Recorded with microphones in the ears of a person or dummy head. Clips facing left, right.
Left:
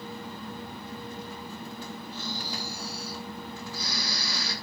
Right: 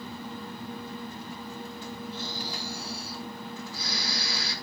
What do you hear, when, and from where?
2.1 s snoring: 70° left (ahead or behind), 8 m